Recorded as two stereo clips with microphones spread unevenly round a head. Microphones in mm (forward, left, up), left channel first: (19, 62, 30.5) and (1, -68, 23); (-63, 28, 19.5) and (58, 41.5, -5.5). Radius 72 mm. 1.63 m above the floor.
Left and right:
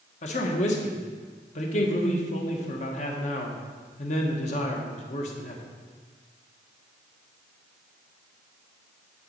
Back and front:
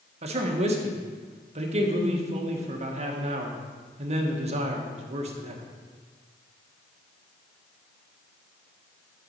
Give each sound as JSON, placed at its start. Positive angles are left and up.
{"t": 0.2, "sound": "a man speaking", "azimuth_deg": 45, "distance_m": 1.3}